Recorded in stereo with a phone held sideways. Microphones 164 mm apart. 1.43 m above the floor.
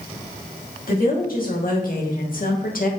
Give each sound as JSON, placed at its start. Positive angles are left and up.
{"t": 0.9, "sound": "a woman speaking", "side_deg": 60, "distance_m": 2.5}